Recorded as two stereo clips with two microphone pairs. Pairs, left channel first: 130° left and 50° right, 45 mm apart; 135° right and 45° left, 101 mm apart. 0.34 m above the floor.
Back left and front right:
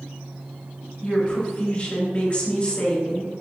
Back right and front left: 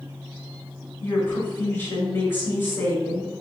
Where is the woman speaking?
175° left, 1.7 m.